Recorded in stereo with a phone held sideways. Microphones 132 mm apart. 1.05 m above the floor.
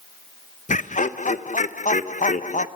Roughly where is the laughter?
Left.